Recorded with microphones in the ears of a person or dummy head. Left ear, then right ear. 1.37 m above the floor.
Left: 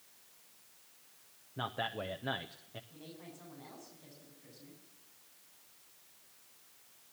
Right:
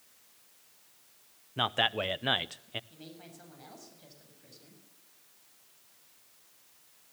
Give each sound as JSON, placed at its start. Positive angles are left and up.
{"t": 1.6, "sound": "a man speaking", "side_deg": -60, "distance_m": 0.7}
{"t": 2.9, "sound": "a woman speaking", "side_deg": -50, "distance_m": 7.5}